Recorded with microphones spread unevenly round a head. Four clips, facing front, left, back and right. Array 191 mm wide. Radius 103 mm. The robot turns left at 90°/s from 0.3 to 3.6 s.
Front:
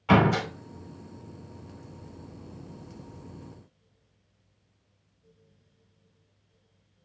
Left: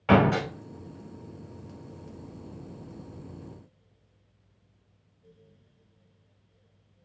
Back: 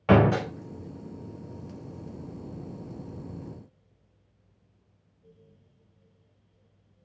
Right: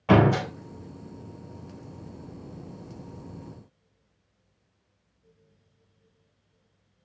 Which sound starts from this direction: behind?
A door slam, at 0.1 s.